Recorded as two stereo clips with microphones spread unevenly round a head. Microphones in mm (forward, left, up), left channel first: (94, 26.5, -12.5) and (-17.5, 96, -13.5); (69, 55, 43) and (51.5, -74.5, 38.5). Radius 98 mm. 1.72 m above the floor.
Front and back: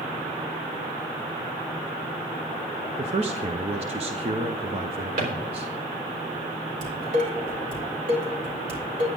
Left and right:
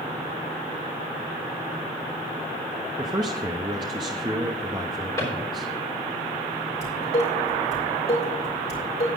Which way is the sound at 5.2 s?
155° left.